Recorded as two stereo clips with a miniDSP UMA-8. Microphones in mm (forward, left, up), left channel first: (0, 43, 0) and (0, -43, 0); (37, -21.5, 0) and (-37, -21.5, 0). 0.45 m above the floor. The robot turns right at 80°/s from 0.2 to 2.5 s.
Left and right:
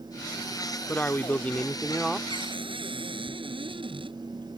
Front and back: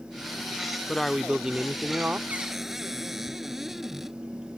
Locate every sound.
0.9 s a man speaking: 75° left; by 2.2 s 175° left
2.3 s a cupboard door: 110° right; by 4.2 s 95° right